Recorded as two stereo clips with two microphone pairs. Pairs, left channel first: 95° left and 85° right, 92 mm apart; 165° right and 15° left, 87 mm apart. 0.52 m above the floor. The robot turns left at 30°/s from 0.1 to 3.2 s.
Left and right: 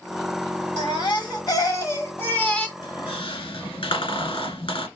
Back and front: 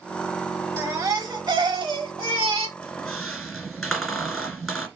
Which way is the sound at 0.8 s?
70° left.